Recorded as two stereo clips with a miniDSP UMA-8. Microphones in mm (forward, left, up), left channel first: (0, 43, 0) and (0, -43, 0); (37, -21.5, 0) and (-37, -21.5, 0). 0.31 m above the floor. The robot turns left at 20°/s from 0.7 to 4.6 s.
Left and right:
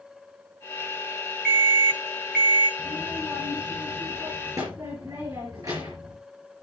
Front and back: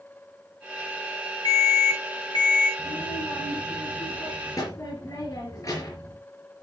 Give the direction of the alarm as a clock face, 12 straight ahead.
12 o'clock.